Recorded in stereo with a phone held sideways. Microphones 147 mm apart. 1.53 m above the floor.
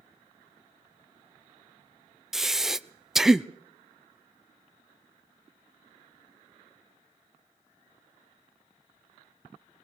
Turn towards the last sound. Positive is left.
turn(degrees=-5)  # may be behind; listen again after turning